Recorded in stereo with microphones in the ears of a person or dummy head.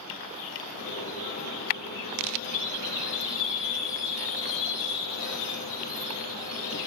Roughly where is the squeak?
Left.